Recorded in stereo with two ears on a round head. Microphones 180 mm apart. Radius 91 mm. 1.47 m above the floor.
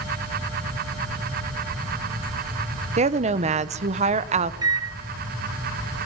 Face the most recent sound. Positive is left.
turn(degrees=-20)  # may be behind; listen again after turning